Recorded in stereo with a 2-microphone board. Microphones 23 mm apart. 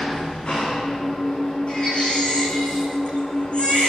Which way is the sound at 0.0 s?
50° left (ahead or behind).